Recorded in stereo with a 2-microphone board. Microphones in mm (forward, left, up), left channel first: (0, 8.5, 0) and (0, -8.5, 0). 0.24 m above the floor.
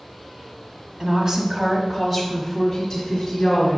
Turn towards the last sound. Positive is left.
turn(degrees=25)  # may be behind; listen again after turning